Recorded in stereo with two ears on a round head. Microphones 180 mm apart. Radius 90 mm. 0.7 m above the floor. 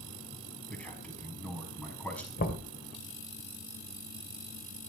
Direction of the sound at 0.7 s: 5° left (ahead or behind).